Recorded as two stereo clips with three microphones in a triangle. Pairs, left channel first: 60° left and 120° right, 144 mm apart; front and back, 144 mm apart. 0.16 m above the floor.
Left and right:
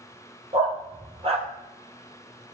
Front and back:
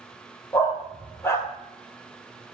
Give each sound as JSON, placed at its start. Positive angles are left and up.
{"t": 0.5, "sound": "a dog barking", "azimuth_deg": -75, "distance_m": 1.9}